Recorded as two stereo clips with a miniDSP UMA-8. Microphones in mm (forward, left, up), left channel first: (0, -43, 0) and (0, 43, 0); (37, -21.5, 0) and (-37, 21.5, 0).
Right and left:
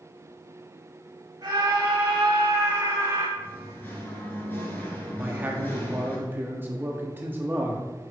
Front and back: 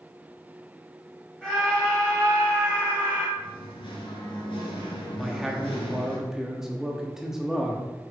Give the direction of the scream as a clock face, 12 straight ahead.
10 o'clock.